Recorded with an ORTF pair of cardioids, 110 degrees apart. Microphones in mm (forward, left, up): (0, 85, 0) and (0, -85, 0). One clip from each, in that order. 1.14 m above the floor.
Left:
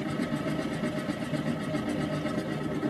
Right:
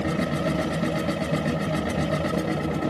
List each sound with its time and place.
0.0 s a machine running: 65° right, 0.8 m